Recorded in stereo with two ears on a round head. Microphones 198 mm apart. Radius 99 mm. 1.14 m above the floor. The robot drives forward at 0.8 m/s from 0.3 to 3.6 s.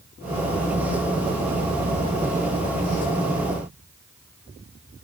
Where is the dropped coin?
No dropped coin in this recording.